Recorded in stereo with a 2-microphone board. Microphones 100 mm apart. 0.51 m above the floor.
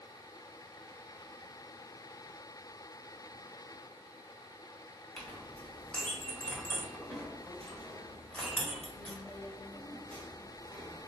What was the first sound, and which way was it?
A clink, 10° left (ahead or behind).